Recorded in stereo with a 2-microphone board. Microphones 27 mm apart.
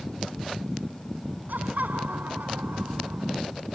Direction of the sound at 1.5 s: 80° right.